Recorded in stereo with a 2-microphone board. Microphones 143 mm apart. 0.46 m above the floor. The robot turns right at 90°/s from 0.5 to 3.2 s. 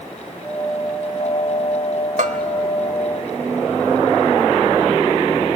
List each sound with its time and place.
2.2 s a bell: 65° right (ahead or behind), 1.1 m; by 2.4 s 55° right (ahead or behind), 1.1 m